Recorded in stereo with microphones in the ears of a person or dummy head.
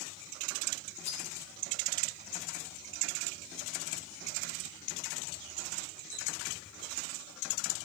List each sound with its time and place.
1.0 s cutlery clinking: 55° left (ahead or behind), 4 m